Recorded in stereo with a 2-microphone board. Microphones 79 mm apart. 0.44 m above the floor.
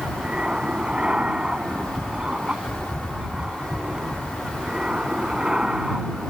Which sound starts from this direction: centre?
An aircraft, at 0.0 s.